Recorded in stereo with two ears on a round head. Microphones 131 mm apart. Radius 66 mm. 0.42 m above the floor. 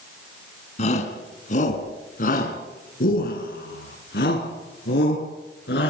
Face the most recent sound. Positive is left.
turn(degrees=80)